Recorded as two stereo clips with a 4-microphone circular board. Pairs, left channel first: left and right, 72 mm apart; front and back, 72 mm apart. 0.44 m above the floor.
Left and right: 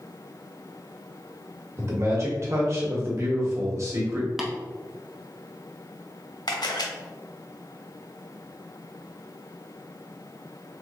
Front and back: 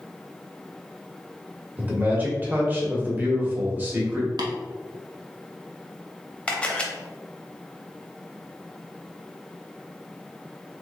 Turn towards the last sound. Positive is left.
turn(degrees=75)